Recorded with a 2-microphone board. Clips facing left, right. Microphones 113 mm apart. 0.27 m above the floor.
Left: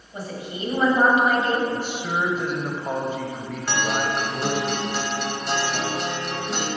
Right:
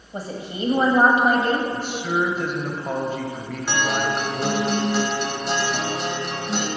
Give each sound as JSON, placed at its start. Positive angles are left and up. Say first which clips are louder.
{"t": 0.1, "sound": "a woman speaking", "louder": "right 2 dB", "side_deg": -35, "distance_m": 1.3}
{"t": 1.7, "sound": "a man speaking", "louder": "right 2 dB", "side_deg": 10, "distance_m": 1.0}
{"t": 3.7, "sound": "a guitar", "louder": "right 1 dB", "side_deg": -5, "distance_m": 1.5}